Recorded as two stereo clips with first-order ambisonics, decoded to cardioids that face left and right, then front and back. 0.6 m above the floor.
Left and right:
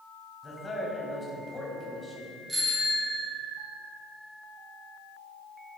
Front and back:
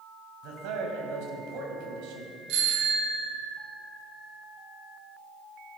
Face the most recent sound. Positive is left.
turn(degrees=-175)